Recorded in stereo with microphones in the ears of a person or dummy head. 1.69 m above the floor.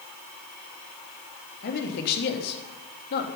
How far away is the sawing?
I don't hear sawing.